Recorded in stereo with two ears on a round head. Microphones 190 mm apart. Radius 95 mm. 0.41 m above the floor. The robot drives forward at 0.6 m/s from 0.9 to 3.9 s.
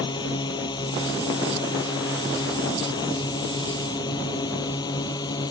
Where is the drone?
20° left (ahead or behind).